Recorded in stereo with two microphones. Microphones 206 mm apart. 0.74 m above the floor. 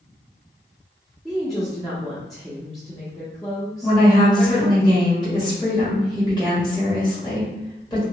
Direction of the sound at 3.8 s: 20° left (ahead or behind).